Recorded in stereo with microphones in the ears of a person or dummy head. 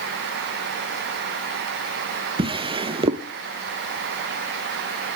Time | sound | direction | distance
2.4 | a drawer | 25° right (ahead or behind) | 0.6 m